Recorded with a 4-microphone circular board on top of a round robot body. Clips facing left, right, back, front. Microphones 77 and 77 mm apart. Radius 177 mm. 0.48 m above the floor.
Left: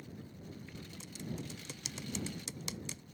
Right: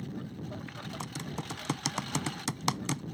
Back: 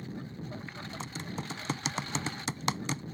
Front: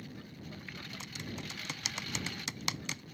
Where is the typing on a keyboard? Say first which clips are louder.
Right 3 dB, back 5 dB; 120° right.